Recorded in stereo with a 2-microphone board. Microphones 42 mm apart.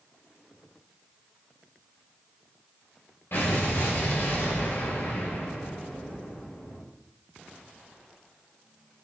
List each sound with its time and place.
3.3 s an explosion: 70° left (ahead or behind), 5 m